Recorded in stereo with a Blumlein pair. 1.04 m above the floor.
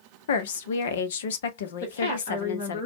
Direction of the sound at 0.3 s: 60° left.